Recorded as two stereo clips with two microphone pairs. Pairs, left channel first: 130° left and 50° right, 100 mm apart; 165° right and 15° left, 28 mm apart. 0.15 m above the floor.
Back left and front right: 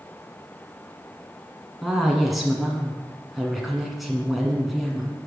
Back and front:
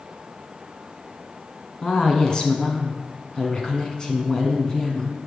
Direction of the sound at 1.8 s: 140° right.